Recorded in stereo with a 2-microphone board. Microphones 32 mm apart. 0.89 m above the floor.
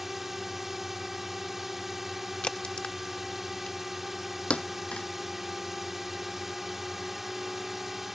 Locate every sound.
0.0 s a drone: 10° right (ahead or behind)
2.4 s a crack: 35° left (ahead or behind)
4.5 s a thud: 40° left (ahead or behind)